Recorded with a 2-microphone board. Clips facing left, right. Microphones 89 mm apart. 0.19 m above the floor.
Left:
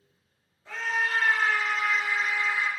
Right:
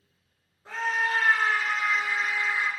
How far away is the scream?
About 3 m.